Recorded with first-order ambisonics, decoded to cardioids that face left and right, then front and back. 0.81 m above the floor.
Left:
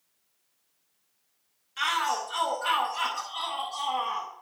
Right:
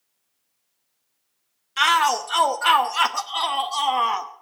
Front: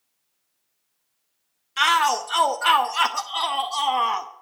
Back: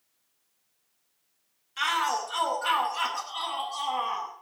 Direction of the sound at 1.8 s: 50° right.